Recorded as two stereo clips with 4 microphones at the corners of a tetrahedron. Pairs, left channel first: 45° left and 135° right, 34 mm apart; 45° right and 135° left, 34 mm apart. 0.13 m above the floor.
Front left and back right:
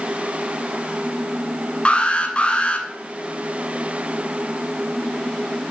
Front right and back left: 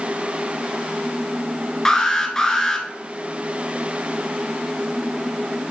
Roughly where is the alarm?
Ahead.